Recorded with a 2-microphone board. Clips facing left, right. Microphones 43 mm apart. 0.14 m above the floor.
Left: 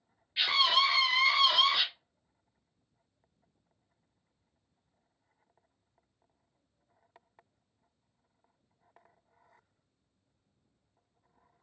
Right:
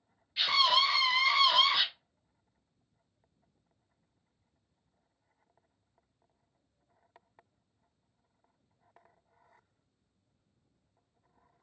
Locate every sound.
0.4 s a scream: 25° left (ahead or behind), 1.9 m; by 1.9 s 5° right (ahead or behind), 1.7 m